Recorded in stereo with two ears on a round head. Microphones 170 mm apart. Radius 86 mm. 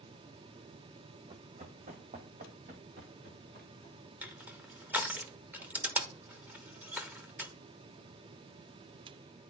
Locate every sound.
1.3 s running footsteps: 30° right (ahead or behind), 1.1 m; by 4.1 s 55° right (ahead or behind), 3 m
4.2 s crushing: 10° right (ahead or behind), 0.8 m